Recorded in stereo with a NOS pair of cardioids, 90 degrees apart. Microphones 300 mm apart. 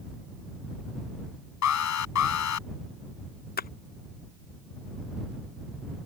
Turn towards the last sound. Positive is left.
turn(degrees=30)